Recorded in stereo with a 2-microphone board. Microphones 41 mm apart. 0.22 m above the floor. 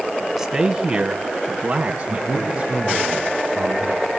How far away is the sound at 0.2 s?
About 1.8 m.